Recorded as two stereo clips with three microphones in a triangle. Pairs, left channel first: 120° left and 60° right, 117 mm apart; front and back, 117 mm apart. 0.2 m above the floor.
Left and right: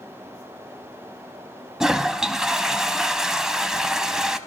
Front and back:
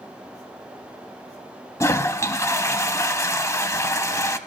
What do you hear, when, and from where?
1.8 s a toilet flushing: 20° left, 0.5 m